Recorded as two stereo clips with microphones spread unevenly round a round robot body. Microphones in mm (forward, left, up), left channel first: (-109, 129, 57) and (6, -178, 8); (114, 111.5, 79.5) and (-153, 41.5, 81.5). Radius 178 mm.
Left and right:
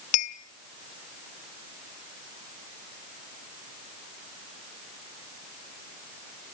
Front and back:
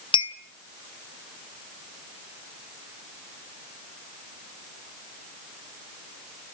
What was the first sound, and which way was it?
A clink, 90° left.